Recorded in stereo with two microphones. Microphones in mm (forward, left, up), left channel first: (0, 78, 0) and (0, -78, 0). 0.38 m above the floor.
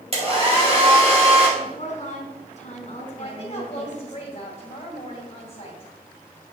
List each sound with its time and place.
0.1 s a hair dryer: 40° right (ahead or behind), 2 m
1.6 s a woman speaking: 50° left (ahead or behind), 1.8 m
3.2 s a woman speaking: 35° left (ahead or behind), 2 m